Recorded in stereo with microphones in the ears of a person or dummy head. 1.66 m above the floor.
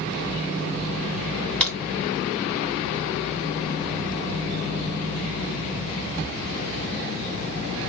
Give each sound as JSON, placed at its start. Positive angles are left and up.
{"t": 1.6, "sound": "a crack", "side_deg": 10, "distance_m": 2.5}